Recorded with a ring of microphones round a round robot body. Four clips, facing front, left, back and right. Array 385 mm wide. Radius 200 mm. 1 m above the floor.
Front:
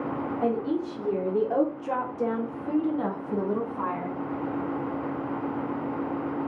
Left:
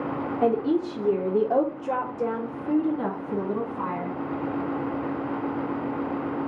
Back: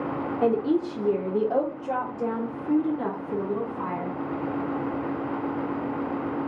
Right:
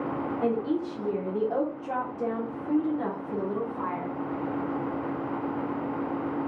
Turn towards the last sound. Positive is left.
turn(degrees=20)